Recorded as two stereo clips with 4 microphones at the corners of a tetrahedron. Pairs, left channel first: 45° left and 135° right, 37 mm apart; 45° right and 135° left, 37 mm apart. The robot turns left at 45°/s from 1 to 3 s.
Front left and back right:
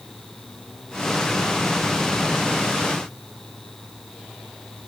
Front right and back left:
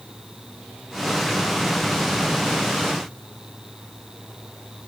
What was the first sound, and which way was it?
Only background noise.